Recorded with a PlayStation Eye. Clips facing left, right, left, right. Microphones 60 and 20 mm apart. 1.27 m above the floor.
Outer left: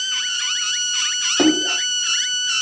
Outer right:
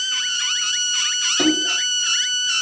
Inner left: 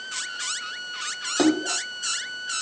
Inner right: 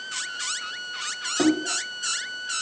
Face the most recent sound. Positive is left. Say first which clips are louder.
# outer left 3 dB, inner left 1 dB
turn(degrees=45)  # may be behind; listen again after turning